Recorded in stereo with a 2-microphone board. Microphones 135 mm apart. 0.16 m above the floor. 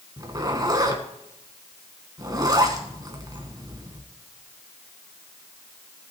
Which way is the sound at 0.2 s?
30° right (ahead or behind).